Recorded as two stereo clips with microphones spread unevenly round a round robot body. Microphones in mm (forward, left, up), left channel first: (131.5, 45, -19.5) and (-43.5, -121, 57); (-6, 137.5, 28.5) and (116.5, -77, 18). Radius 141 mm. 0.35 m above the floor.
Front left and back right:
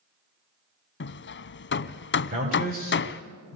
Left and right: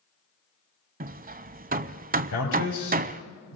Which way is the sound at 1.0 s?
Straight ahead.